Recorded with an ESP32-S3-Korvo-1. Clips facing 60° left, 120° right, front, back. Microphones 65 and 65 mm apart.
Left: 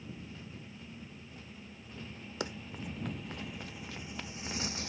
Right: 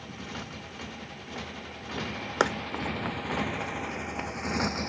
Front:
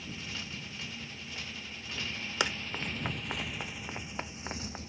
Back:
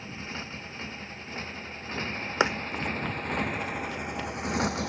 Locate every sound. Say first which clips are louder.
0.0 s a motorcycle: right 7 dB, back 4 dB; 125° right; by 4.9 s 170° right
2.4 s running footsteps: right 13 dB, back 7 dB; 120° right; by 4.8 s 55° right